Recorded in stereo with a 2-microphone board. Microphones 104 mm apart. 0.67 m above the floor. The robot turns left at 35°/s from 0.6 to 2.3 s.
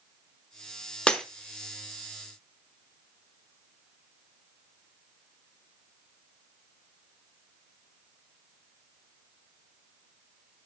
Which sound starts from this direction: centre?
Breaking glass, at 1.1 s.